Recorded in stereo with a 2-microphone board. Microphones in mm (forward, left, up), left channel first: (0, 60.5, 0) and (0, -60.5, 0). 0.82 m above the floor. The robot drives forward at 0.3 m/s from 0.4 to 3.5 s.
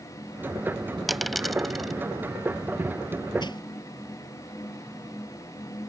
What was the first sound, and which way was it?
A dropped coin, centre (ahead or behind).